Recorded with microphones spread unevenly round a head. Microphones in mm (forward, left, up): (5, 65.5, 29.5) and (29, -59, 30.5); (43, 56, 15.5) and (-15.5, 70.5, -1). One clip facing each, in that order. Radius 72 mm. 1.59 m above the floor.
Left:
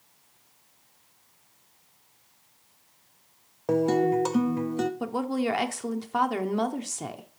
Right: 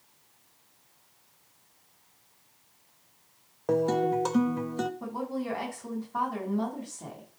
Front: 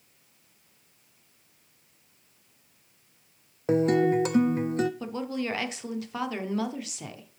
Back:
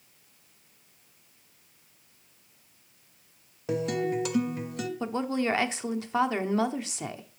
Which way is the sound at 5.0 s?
105° left.